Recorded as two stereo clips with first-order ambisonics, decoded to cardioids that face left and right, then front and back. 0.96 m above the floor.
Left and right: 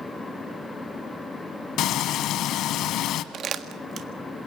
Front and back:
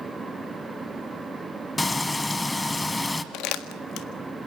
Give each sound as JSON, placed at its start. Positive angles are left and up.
{"t": 1.8, "sound": "frying", "azimuth_deg": 75, "distance_m": 1.1}
{"t": 3.3, "sound": "crumpling", "azimuth_deg": -30, "distance_m": 1.7}